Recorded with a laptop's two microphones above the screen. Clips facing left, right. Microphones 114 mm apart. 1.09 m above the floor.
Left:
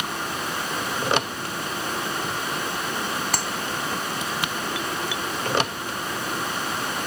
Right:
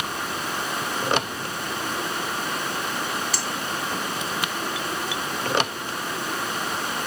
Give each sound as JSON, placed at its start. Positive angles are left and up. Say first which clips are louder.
{"t": 3.3, "sound": "a clap", "louder": "left 2 dB", "side_deg": 55}